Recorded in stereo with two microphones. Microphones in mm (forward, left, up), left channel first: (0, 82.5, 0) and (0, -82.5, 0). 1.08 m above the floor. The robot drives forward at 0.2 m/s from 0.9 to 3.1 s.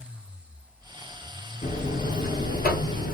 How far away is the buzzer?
About 1.0 m.